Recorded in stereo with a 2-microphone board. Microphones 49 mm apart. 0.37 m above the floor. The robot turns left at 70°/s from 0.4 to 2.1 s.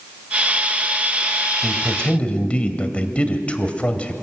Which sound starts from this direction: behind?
A man speaking, at 1.6 s.